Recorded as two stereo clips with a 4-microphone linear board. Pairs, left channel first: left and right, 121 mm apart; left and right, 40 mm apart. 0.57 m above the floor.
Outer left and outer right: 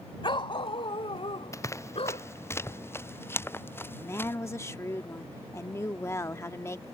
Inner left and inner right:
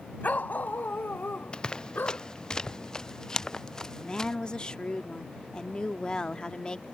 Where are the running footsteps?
25° left (ahead or behind); by 4.3 s 20° left (ahead or behind).